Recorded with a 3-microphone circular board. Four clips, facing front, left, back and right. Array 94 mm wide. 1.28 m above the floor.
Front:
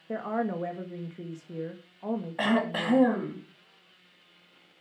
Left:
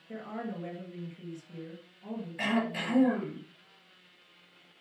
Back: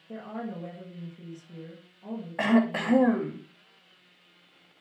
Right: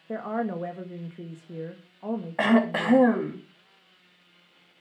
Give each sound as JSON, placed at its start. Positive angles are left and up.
{"t": 0.1, "sound": "a woman speaking", "azimuth_deg": -50, "distance_m": 1.6}
{"t": 2.4, "sound": "throat clearing", "azimuth_deg": -95, "distance_m": 3.0}